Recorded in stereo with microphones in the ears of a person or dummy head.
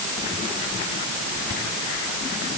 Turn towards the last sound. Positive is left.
No sound to turn to.